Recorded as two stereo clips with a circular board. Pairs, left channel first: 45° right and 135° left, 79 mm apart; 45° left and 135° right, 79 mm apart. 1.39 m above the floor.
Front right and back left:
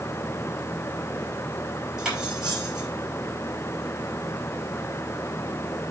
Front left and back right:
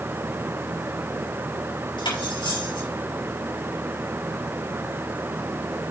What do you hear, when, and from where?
2.0 s cutlery clinking: 55° left, 5.5 m